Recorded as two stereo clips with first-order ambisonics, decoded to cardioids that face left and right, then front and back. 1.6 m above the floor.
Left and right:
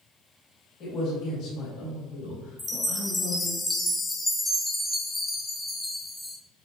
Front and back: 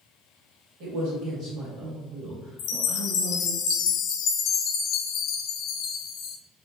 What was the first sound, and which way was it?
A man speaking, 145° left.